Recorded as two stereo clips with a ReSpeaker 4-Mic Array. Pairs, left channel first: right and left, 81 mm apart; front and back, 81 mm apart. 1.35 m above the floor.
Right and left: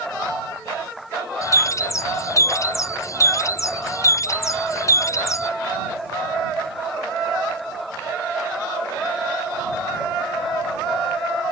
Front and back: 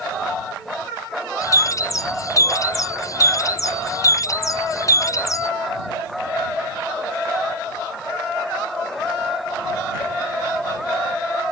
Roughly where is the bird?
Ahead right.